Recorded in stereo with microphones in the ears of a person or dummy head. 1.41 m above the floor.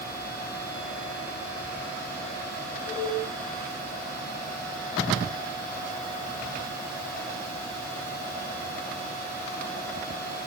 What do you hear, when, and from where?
Only background noise.